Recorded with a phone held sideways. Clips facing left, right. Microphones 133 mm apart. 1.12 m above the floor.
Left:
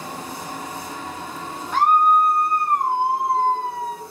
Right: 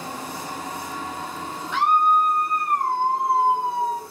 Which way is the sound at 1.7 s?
40° left (ahead or behind).